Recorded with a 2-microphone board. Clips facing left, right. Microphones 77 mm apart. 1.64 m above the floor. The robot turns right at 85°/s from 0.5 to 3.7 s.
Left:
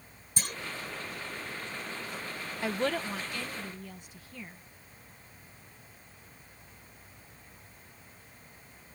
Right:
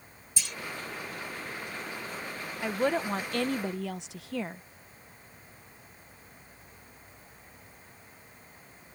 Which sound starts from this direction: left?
A clunk, at 0.4 s.